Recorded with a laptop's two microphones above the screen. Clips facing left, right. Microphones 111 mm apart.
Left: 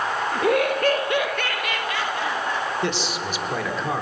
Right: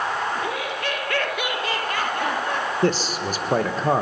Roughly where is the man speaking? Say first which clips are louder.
Right 4 dB; right.